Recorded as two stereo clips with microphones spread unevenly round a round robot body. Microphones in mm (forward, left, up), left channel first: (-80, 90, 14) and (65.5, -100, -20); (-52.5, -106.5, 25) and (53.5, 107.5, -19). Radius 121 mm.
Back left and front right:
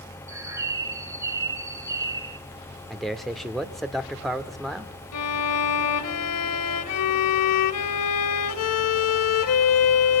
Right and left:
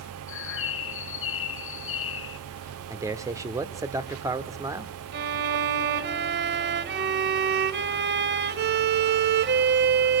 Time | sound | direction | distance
0.3 | a bird | 115° right | 1.4 m
2.9 | a man speaking | 25° left | 0.9 m
5.1 | a violin | 105° left | 1.1 m